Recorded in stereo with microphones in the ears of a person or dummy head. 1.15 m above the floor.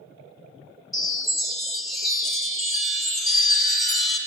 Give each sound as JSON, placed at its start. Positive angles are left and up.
{"t": 0.9, "sound": "a chime", "side_deg": 0, "distance_m": 0.8}